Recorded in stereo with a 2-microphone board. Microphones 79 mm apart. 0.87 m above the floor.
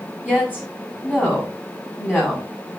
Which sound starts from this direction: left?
A woman speaking, at 0.2 s.